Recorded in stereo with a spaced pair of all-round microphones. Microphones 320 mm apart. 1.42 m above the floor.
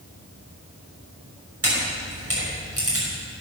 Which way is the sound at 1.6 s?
50° right (ahead or behind).